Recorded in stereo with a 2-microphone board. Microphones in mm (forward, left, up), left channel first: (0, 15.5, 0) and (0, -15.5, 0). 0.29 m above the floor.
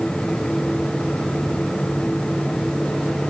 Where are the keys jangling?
No keys jangling in this recording.